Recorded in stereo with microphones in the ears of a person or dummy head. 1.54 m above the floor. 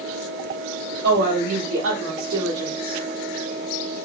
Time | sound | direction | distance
1.0 | a woman speaking | 90° right | 3 m